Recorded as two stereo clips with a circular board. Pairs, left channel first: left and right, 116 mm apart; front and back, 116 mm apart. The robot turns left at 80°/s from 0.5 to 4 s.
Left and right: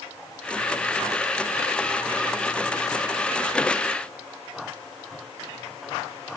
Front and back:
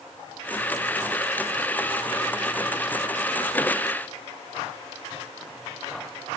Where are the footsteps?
I don't hear footsteps.